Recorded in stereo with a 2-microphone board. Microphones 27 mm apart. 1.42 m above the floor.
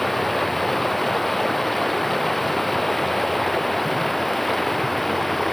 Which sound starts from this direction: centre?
Running water, at 0.0 s.